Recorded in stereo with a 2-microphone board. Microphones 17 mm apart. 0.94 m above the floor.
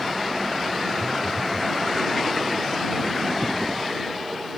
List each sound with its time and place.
1.0 s a phone buzzing: 15° left (ahead or behind)